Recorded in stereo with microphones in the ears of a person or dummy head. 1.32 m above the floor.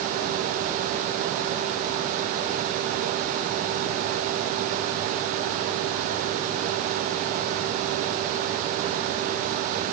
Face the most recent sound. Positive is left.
No sound to turn to.